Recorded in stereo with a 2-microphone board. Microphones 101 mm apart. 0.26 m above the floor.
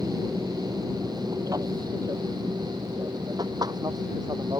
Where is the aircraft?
30° right (ahead or behind); by 4.6 s 40° right (ahead or behind).